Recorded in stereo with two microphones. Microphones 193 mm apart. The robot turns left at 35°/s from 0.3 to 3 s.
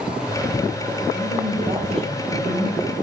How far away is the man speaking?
About 3.5 m.